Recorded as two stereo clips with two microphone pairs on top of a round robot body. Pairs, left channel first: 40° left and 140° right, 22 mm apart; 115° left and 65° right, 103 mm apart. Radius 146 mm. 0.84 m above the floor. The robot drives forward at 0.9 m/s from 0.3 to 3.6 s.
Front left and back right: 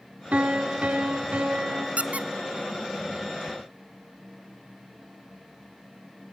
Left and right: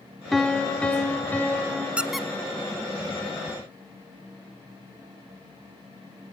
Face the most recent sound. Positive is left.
turn(degrees=-170)